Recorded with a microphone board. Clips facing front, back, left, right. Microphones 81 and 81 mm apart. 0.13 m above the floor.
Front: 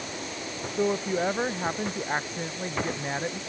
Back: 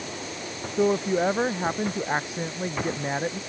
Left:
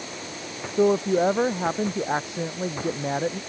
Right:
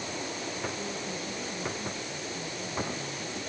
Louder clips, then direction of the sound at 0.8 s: Back 4 dB, left 17 dB; 100° left.